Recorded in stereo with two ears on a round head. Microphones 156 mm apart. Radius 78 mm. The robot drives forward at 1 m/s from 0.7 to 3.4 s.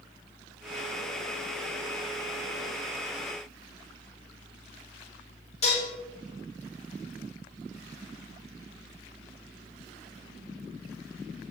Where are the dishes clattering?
40° left (ahead or behind), 3.5 m.